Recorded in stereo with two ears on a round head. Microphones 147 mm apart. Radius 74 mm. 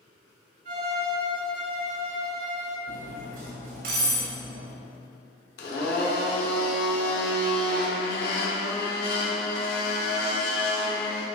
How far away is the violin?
About 2.5 m.